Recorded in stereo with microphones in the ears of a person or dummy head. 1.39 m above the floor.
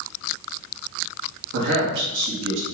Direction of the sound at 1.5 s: 75° right (ahead or behind).